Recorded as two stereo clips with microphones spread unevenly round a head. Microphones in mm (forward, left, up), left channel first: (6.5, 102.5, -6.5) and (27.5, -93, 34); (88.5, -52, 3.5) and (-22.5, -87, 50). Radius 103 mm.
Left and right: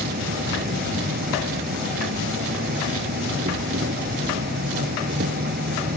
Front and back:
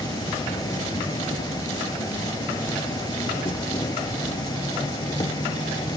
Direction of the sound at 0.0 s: 40° right.